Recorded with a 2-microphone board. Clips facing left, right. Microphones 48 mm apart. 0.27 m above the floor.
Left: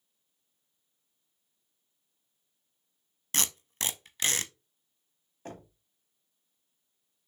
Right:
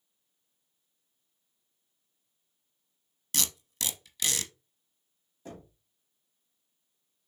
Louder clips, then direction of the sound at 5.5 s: Left 1 dB; 50° left (ahead or behind).